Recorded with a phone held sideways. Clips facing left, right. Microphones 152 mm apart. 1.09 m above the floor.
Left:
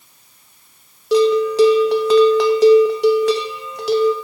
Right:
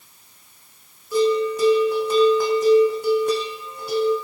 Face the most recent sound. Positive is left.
turn(degrees=80)